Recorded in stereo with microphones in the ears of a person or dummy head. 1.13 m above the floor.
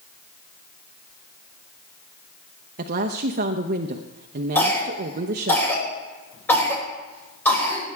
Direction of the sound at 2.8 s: 50° right (ahead or behind).